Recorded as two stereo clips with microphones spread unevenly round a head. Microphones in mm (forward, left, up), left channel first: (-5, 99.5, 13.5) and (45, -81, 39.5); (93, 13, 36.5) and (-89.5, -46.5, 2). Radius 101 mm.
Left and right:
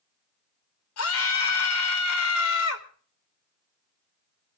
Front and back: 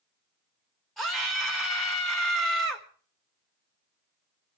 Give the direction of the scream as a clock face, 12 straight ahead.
8 o'clock.